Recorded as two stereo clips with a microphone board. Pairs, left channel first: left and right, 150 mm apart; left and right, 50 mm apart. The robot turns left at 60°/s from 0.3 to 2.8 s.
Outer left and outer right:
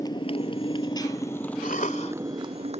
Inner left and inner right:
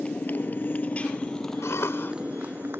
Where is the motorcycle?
25° left (ahead or behind); by 2.8 s 45° right (ahead or behind).